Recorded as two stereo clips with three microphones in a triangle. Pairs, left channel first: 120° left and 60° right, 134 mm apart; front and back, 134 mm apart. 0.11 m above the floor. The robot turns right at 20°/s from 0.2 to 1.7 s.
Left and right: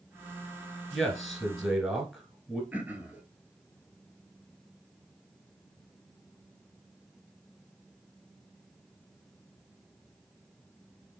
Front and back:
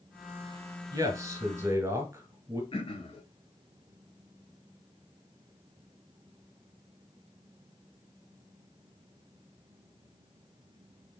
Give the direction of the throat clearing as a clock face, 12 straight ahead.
12 o'clock.